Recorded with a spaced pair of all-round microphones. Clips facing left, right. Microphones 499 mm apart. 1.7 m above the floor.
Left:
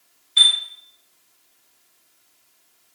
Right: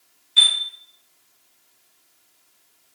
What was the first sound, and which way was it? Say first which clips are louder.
A chime: even; 30° right (ahead or behind).